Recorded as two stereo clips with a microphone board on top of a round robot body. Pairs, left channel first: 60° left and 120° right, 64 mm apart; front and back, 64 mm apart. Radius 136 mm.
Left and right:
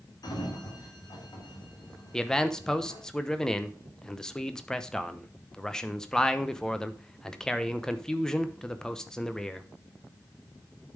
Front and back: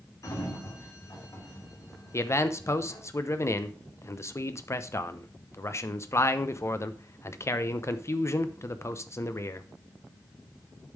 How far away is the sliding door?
About 2.5 m.